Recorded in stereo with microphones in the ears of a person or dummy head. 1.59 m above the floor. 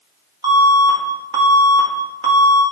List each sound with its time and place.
0.4 s an alarm: 20° right (ahead or behind), 2.5 m